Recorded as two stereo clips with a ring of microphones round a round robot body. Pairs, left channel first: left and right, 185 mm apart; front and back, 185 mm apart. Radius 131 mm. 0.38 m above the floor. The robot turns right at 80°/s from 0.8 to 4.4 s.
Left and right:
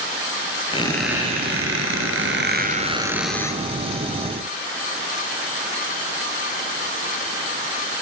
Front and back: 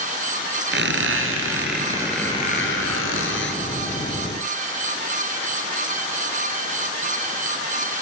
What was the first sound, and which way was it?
A squeak, 160° left.